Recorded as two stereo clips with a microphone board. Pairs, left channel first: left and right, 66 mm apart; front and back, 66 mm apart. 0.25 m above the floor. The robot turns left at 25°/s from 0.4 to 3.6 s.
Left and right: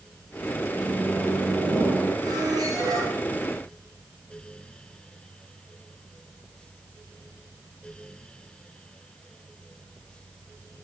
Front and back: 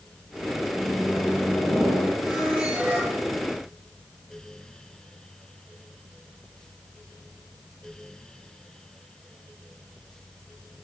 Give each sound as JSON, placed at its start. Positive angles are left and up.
{"t": 0.8, "sound": "a microwave", "azimuth_deg": -15, "distance_m": 9.0}
{"t": 2.2, "sound": "a squeak", "azimuth_deg": -90, "distance_m": 5.5}